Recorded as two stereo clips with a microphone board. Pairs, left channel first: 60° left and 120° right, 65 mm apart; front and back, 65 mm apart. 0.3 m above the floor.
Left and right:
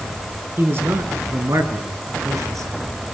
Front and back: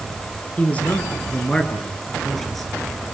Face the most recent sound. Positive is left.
turn(degrees=-90)